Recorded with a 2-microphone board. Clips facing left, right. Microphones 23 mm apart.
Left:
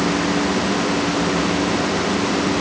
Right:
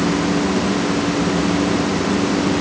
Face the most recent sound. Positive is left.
No sound to turn to.